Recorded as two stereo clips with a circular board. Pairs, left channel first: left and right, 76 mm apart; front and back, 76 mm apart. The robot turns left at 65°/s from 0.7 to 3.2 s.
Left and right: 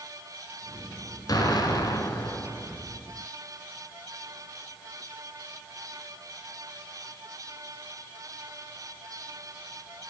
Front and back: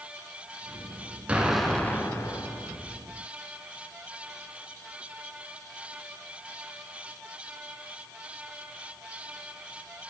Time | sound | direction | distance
1.3 | an explosion | 110° left | 1.6 m